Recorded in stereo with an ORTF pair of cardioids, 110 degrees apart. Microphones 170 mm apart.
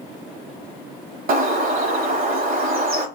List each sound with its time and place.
1.3 s a bird: 55° right, 0.9 m